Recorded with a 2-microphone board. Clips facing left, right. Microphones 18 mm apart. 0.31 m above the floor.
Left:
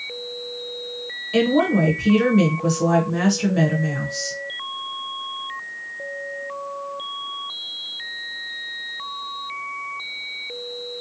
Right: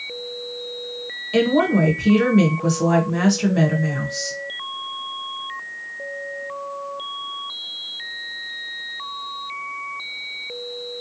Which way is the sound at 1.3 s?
5° right (ahead or behind).